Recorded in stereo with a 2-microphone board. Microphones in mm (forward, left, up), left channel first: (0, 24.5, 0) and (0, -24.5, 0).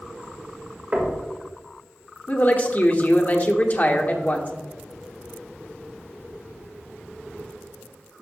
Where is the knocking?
35° right (ahead or behind), 1.9 m.